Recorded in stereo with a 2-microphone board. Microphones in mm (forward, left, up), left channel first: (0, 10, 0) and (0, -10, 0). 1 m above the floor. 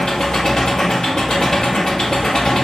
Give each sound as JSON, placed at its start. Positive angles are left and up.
{"t": 0.0, "sound": "an engine running", "side_deg": 45, "distance_m": 1.6}